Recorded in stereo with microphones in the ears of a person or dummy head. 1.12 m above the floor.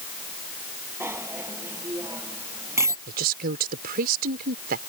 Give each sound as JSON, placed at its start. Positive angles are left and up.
{"t": 1.0, "sound": "a bicycle bell", "side_deg": -10}
{"t": 3.1, "sound": "a woman speaking", "side_deg": -55}